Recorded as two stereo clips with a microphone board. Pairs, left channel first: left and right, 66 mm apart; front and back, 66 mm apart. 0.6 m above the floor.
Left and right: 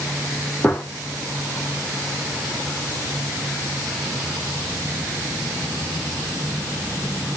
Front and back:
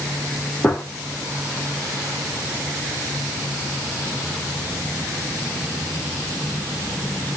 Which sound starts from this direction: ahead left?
A gunshot, at 0.6 s.